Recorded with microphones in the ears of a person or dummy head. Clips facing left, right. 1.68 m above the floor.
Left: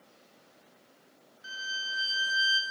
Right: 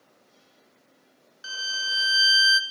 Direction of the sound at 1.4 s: 80° right.